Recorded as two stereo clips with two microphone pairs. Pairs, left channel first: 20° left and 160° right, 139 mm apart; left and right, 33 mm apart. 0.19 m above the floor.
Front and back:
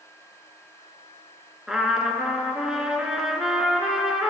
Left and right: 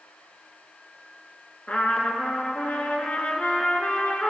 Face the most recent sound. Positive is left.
turn(degrees=115)